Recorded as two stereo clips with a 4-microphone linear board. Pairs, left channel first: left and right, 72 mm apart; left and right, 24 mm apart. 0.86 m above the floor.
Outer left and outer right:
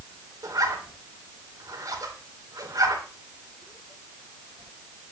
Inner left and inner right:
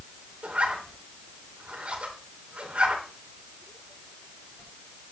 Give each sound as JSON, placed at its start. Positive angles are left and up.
{"t": 0.4, "sound": "a zipper", "side_deg": -55, "distance_m": 3.0}